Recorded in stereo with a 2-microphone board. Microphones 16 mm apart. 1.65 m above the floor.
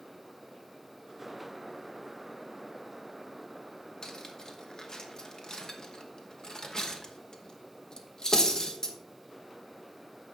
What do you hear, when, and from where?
4.0 s cutlery clinking: 45° left (ahead or behind), 1.0 m